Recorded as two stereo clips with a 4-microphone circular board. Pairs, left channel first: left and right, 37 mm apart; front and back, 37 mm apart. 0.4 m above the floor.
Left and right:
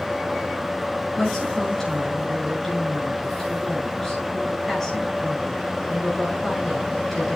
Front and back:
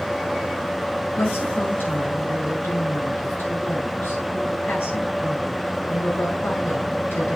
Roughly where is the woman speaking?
Ahead.